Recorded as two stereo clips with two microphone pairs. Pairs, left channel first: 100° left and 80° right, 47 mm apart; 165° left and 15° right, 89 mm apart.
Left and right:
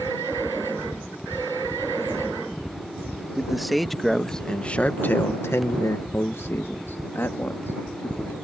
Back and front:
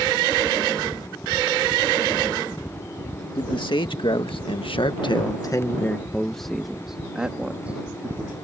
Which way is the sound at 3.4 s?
170° right.